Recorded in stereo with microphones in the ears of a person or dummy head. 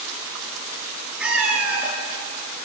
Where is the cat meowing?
5° right (ahead or behind), 4 m.